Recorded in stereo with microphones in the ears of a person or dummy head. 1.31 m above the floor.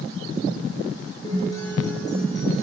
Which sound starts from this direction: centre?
A guitar, at 1.2 s.